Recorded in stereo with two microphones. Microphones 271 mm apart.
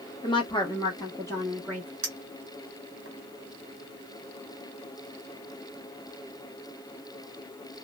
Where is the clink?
55° right (ahead or behind), 0.7 m.